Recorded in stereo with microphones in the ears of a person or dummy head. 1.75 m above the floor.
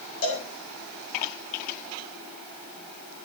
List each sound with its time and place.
0.2 s a cowbell: 75° left (ahead or behind), 10 m